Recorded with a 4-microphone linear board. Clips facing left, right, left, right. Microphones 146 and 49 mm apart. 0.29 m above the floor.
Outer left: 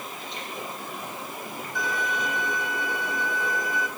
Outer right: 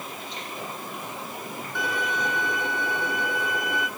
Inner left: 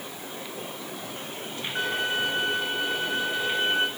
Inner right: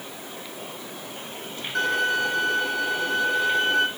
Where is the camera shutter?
No camera shutter in this recording.